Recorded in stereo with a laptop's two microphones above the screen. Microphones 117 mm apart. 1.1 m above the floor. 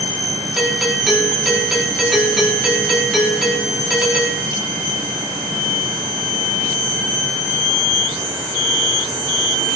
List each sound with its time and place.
0.6 s a doorbell: centre (ahead or behind), 4 m